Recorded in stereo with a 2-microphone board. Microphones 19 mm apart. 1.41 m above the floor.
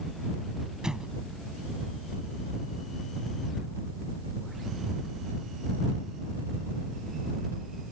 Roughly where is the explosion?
Right.